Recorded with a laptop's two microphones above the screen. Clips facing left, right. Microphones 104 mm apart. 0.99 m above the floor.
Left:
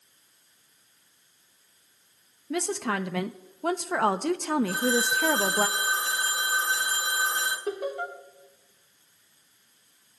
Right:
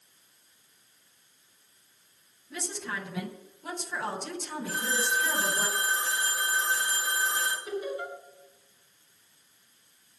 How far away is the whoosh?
No whoosh in this recording.